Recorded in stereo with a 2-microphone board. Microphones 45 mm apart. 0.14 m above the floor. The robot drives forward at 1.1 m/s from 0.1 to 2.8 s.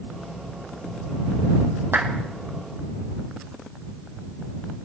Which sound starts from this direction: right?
A clap, at 1.9 s.